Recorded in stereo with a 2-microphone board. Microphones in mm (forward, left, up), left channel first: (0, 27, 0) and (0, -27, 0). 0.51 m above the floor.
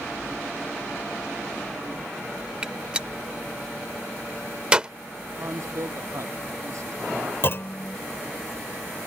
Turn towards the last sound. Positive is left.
turn(degrees=45)  # may be behind; listen again after turning